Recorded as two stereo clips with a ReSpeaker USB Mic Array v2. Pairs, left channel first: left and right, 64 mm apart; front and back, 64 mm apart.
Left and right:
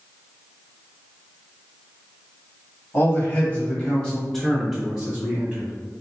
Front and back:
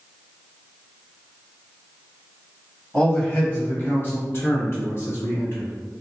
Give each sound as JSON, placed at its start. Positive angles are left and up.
{"t": 2.9, "sound": "a man speaking", "azimuth_deg": 55, "distance_m": 1.3}